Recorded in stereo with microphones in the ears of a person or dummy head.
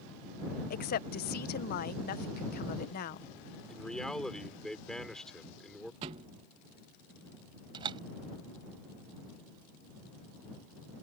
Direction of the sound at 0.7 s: 50° left (ahead or behind).